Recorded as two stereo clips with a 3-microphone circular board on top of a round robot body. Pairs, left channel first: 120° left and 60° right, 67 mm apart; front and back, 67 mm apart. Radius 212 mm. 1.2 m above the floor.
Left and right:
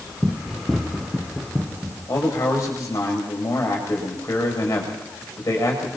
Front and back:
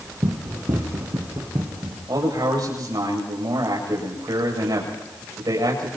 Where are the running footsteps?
155° right, 2 m; by 2.0 s 140° right, 3 m.